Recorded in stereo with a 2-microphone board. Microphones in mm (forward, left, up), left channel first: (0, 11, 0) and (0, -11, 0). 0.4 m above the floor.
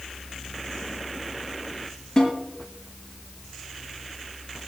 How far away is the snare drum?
About 6 m.